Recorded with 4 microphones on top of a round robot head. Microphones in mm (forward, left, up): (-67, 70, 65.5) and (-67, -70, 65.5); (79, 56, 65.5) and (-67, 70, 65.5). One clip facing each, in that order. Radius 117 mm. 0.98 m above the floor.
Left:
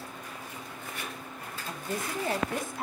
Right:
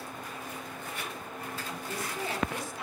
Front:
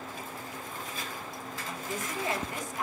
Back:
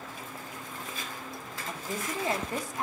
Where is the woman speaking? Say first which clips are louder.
Left 6 dB, back 2 dB; 120° left, 1.6 m.